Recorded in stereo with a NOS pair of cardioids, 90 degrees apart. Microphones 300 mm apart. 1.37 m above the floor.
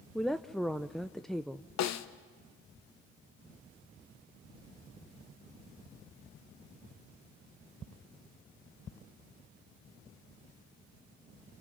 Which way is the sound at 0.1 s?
Straight ahead.